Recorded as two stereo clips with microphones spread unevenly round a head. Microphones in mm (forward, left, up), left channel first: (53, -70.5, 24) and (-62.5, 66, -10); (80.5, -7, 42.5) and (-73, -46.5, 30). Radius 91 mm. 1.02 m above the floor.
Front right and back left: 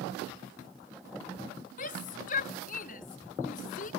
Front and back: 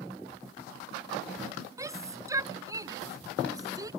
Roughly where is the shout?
Right.